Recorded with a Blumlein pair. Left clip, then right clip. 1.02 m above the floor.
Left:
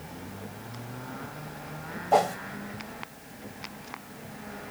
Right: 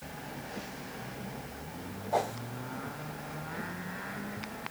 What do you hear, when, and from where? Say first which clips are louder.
2.1 s a whoosh: left 8 dB; 50° left, 1.0 m